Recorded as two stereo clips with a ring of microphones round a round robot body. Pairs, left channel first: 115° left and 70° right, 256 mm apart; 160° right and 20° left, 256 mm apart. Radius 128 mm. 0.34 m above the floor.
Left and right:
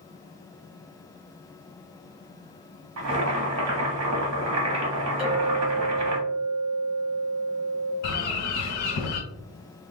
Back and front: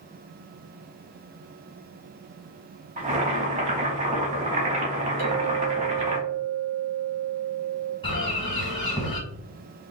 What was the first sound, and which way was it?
Boiling, 40° right.